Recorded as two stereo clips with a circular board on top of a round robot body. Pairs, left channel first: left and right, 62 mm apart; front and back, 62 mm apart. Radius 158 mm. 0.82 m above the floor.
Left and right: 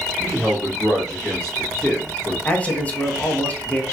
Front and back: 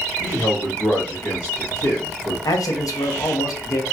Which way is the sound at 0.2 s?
15° left.